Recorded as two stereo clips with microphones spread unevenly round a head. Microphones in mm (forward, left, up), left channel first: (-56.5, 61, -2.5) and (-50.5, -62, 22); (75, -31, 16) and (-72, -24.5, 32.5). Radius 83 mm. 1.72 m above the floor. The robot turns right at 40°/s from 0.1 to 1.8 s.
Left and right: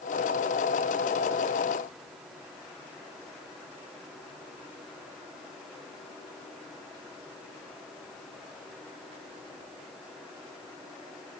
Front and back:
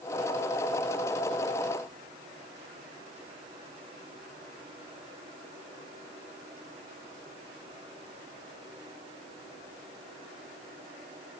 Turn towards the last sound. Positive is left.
No sound to turn to.